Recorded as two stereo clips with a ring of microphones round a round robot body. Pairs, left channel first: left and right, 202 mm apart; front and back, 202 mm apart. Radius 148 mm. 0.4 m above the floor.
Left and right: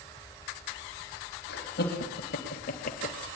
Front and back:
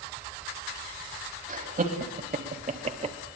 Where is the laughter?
135° left, 3.5 m.